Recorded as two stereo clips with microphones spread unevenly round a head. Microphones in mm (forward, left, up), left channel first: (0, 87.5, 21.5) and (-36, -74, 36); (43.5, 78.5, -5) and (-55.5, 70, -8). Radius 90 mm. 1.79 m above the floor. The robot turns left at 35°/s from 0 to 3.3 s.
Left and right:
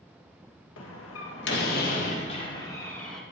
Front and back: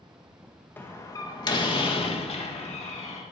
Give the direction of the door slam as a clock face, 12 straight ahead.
10 o'clock.